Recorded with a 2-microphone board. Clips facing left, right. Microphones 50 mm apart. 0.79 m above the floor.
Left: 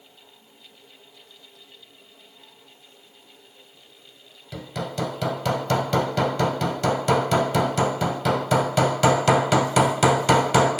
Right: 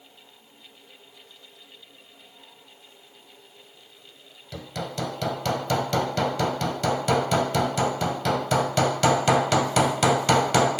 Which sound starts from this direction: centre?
Hammering, at 4.5 s.